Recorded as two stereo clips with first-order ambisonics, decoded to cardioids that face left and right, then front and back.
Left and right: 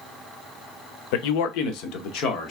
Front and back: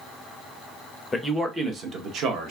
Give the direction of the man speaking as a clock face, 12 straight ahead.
9 o'clock.